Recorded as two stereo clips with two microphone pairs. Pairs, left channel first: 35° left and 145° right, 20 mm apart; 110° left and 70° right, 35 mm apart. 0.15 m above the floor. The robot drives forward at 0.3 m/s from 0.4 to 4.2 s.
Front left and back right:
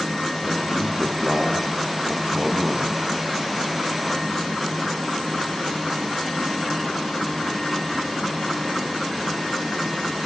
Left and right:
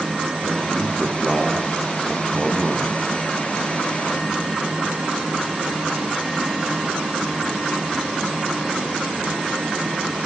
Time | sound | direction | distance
0.4 | a man speaking | 150° right | 4 m